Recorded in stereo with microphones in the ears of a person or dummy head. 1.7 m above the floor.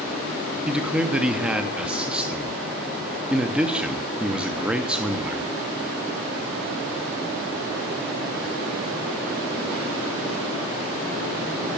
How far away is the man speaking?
About 0.9 m.